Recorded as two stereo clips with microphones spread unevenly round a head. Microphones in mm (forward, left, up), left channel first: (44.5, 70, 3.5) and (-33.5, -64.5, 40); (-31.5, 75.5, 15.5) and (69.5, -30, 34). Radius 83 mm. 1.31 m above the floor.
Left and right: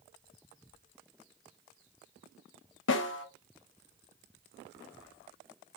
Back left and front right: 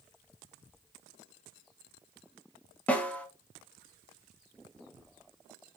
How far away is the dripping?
I don't hear dripping.